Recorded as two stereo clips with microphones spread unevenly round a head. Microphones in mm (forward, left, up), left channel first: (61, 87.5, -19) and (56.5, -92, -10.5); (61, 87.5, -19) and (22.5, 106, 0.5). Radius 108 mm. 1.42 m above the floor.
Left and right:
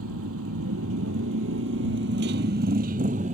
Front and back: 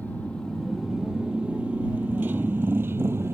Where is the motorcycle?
110° right; by 3.3 s 155° right.